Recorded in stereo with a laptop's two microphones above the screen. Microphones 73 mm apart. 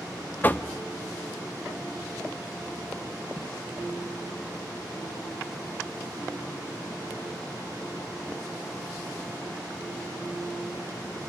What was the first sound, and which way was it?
Knocking, 25° left (ahead or behind).